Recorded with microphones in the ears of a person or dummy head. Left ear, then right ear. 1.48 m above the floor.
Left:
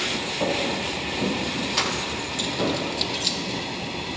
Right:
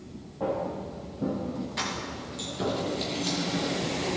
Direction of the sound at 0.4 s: 50° left (ahead or behind).